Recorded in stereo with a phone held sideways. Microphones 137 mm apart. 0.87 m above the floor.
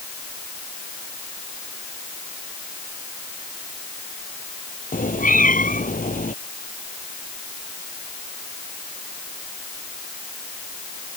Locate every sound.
4.9 s a cat meowing: 80° left